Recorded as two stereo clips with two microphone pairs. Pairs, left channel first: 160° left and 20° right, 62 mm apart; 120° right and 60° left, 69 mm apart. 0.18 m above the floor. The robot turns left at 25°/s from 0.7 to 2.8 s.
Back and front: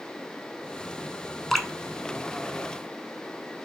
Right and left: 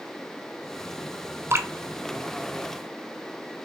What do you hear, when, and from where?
1.5 s dripping: 75° left, 0.6 m; by 1.7 s 70° left, 0.6 m